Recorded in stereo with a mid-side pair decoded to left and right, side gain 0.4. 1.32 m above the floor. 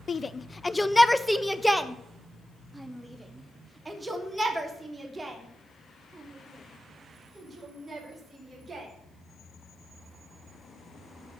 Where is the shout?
40° left, 0.6 m; by 8.9 s 30° right, 5 m.